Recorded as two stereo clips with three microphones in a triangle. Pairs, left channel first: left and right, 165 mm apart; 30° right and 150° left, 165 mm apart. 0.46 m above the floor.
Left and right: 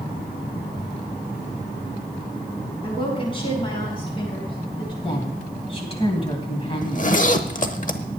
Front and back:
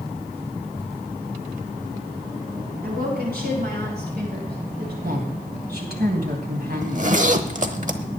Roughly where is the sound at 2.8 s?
Behind left.